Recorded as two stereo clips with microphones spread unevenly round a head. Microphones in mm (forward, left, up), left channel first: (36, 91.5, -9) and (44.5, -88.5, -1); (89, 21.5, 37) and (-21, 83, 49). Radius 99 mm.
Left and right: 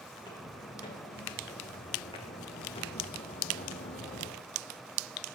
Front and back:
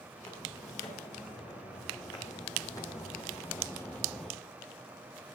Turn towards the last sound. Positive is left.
turn(degrees=65)